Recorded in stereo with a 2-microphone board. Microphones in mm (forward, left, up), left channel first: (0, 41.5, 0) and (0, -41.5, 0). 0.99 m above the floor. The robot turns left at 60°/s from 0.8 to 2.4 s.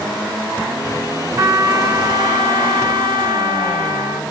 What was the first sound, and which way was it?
A trumpet, 35° right.